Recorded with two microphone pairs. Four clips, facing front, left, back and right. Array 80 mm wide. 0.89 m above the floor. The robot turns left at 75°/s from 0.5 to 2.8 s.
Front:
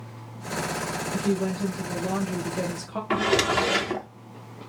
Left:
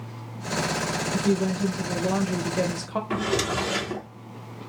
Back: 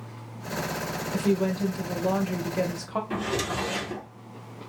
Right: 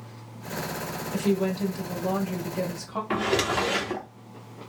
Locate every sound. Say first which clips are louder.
1.1 s a woman speaking: even, back 2 dB; 110° right, 0.7 m; by 3.0 s 125° left, 0.7 m
3.1 s a drawer: right 2 dB, front 10 dB; 25° right, 0.6 m